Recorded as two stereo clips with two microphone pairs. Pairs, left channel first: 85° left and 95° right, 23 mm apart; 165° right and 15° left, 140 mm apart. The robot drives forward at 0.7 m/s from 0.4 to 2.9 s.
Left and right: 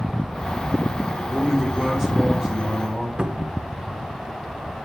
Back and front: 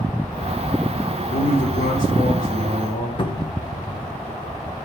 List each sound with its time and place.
1.3 s a man speaking: 170° right, 1.3 m; by 3.1 s 175° right, 2.5 m
3.2 s a cupboard door: 115° right, 0.6 m